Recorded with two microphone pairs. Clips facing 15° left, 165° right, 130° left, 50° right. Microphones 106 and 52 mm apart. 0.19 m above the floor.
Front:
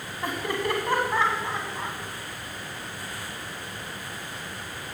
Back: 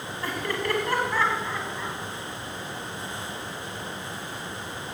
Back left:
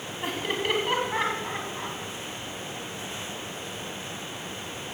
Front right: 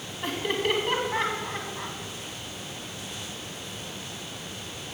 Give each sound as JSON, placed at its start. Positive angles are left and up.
{"t": 0.2, "sound": "laughter", "azimuth_deg": 50, "distance_m": 1.3}